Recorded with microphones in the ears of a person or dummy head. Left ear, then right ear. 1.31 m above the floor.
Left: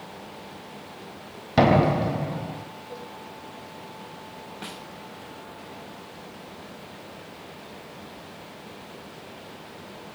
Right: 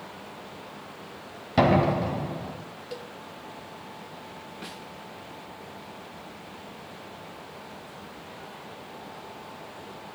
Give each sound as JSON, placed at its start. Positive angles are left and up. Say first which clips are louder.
{"t": 1.6, "sound": "a door slam", "louder": "left 2 dB", "side_deg": 0, "distance_m": 4.0}
{"t": 2.9, "sound": "a cowbell", "louder": "right 2 dB", "side_deg": -55, "distance_m": 2.0}
{"t": 4.6, "sound": "a snare drum", "louder": "left 3 dB", "side_deg": 10, "distance_m": 1.5}